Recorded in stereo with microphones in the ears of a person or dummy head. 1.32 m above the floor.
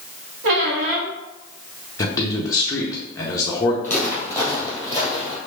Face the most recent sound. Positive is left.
turn(degrees=-25)  # may be behind; listen again after turning